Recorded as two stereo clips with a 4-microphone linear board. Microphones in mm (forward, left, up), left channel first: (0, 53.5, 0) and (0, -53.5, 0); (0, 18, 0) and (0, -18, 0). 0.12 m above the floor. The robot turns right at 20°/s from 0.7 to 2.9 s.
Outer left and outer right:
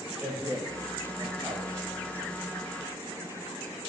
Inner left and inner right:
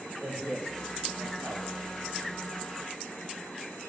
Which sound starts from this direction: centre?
A man speaking, at 0.2 s.